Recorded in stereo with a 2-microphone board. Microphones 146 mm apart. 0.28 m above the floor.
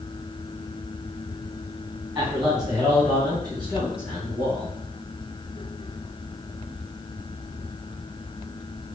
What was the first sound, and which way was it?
A man speaking, 10° right (ahead or behind).